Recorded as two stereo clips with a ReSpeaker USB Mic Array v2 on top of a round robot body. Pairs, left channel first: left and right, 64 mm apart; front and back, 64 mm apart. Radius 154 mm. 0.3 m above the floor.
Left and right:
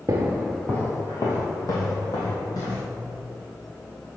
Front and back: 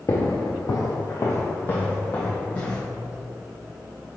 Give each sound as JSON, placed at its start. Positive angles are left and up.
{"t": 0.1, "sound": "footsteps", "azimuth_deg": -45, "distance_m": 0.6}